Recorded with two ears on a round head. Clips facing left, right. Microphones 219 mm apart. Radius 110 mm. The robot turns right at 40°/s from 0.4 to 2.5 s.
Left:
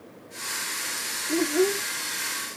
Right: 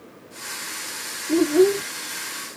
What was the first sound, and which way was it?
A child speaking, 45° right (ahead or behind).